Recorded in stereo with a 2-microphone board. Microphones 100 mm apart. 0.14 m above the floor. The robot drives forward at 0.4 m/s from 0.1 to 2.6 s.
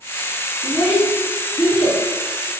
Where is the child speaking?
20° right (ahead or behind), 0.7 m; by 2.0 s 10° right (ahead or behind), 1.0 m.